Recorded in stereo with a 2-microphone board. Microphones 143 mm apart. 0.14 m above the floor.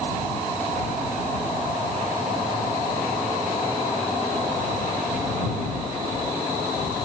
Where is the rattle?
I don't hear a rattle.